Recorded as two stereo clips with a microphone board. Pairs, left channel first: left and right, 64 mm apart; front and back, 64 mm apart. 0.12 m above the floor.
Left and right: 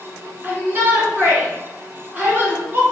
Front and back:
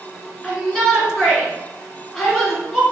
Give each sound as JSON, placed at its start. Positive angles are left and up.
{"t": 0.4, "sound": "a shout", "azimuth_deg": -80, "distance_m": 1.8}